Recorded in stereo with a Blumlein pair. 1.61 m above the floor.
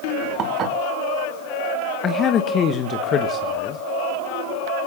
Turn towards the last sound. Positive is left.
turn(degrees=25)